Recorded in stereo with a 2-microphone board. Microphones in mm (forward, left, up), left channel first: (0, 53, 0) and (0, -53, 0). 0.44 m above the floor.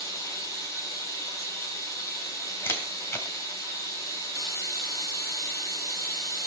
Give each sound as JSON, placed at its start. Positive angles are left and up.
{"t": 0.0, "sound": "running water", "side_deg": 35, "distance_m": 9.5}
{"t": 2.6, "sound": "a camera shutter", "side_deg": 25, "distance_m": 3.0}